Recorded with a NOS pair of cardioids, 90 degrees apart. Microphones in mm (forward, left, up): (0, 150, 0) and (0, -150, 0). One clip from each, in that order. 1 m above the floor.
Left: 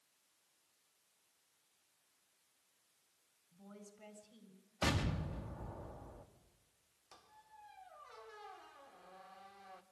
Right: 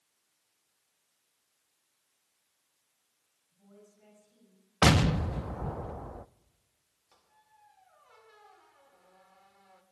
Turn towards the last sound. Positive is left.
turn(degrees=30)